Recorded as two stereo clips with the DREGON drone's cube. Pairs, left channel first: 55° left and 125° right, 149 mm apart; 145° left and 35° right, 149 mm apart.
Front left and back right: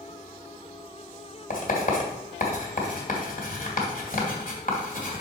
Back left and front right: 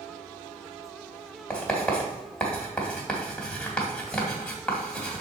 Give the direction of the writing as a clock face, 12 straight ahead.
10 o'clock.